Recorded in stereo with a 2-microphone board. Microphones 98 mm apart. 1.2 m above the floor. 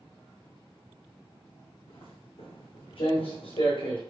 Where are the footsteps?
65° left (ahead or behind), 3.5 m; by 4.0 s 60° left (ahead or behind), 2.5 m.